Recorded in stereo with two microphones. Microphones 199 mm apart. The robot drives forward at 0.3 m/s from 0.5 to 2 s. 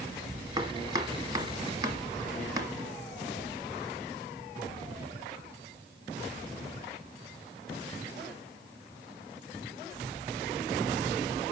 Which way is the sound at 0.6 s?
20° right (ahead or behind).